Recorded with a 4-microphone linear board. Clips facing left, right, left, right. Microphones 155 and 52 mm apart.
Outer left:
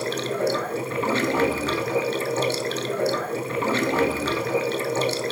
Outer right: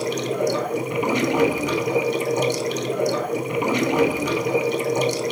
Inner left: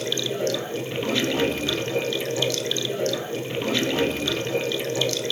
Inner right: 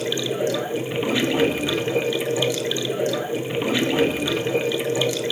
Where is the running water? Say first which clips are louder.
Outer right 2 dB, inner right 2 dB; 15° right (ahead or behind), 1.0 m.